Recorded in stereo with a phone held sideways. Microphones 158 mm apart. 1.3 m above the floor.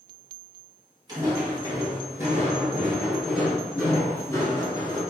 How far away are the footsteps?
About 1.9 m.